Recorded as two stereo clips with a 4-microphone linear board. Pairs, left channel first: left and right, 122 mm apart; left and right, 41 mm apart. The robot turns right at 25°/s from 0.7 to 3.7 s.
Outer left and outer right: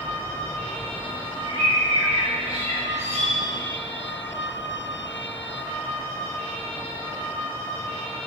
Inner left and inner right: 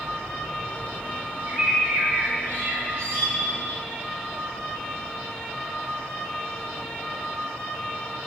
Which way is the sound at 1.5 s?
150° right.